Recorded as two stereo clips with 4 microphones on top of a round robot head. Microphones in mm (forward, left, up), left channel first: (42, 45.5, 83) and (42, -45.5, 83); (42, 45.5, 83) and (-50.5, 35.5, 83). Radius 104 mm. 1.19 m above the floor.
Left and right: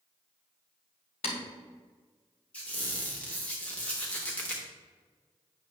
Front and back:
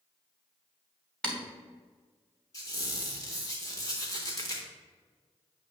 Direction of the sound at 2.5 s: 25° left.